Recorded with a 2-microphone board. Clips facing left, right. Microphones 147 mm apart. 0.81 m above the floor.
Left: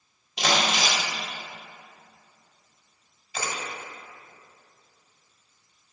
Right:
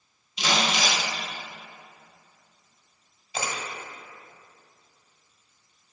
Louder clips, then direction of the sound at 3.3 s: Right 1 dB; 20° right (ahead or behind).